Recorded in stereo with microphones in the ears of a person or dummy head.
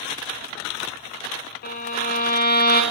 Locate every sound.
1.6 s a violin: 50° left (ahead or behind), 0.6 m